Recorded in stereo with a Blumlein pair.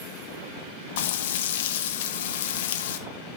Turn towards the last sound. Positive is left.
turn(degrees=55)